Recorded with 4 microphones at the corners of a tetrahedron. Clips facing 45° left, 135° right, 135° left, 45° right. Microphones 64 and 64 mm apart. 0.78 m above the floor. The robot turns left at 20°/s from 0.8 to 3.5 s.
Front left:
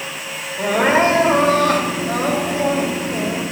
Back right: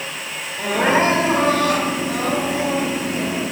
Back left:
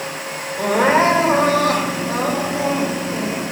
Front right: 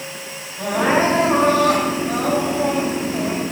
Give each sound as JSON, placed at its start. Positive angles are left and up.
{"t": 0.6, "sound": "crying", "azimuth_deg": 120, "distance_m": 2.5}